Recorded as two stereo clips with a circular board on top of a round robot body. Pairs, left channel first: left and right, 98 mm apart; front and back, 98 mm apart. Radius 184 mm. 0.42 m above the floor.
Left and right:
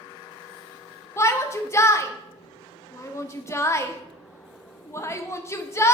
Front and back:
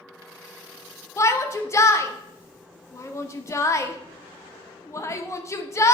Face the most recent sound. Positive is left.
turn(degrees=45)